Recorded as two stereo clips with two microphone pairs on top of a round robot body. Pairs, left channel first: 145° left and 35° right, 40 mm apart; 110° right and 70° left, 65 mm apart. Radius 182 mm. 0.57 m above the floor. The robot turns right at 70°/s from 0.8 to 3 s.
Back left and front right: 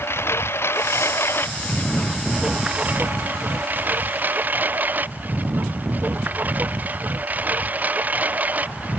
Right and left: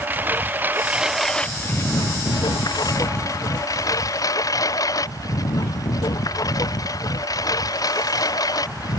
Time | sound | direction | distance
0.0 | a lawn mower | 135° left | ?